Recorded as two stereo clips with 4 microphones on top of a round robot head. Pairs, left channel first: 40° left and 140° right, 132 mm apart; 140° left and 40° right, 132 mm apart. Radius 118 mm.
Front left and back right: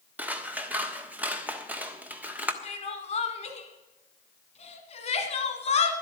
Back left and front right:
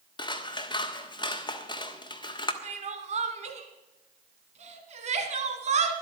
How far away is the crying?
About 1.4 m.